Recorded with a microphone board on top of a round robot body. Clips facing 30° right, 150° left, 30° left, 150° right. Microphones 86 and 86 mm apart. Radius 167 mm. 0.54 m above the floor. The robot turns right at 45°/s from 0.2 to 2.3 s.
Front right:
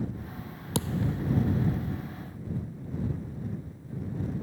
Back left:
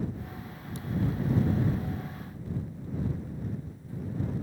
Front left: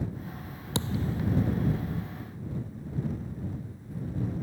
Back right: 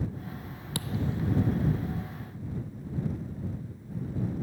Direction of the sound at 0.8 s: 35° right.